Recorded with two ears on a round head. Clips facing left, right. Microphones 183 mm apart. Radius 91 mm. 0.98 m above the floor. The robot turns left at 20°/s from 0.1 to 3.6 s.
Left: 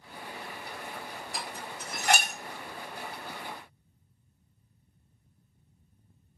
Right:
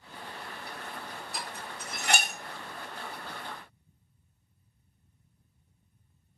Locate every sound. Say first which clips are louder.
1.3 s dishes clattering: left 2 dB; 55° left (ahead or behind), 1.5 m; by 2.3 s 35° left (ahead or behind), 1.5 m